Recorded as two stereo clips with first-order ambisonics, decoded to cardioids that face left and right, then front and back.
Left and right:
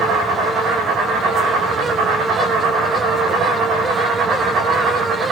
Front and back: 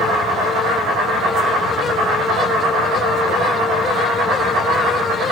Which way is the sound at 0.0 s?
155° right.